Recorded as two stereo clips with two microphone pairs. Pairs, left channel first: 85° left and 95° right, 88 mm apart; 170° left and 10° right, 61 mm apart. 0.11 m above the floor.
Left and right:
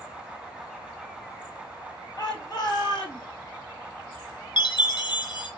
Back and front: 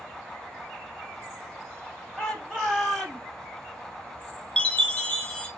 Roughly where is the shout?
Left.